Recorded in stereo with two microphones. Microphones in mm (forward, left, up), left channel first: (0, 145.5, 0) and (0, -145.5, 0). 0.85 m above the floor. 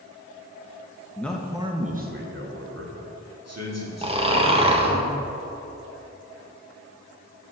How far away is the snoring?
About 0.8 m.